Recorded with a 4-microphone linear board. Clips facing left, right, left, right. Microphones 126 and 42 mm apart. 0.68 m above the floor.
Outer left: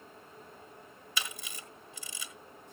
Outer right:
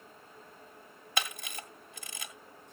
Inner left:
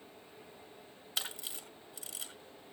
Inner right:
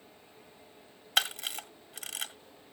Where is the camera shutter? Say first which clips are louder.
Outer right 5 dB, inner right 10 dB; 60° right (ahead or behind), 1.6 m.